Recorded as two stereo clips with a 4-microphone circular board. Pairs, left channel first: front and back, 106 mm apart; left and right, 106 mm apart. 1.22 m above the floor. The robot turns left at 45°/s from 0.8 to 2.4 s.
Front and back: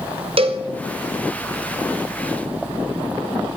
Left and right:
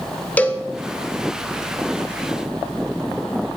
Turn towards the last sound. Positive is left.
turn(degrees=95)